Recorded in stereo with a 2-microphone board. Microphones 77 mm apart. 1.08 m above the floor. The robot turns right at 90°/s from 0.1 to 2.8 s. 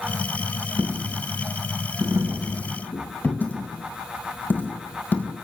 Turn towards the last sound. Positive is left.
turn(degrees=20)  # may be behind; listen again after turning